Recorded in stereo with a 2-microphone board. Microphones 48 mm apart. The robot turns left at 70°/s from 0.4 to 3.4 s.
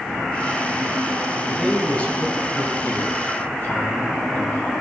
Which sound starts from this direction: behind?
A man speaking, at 1.5 s.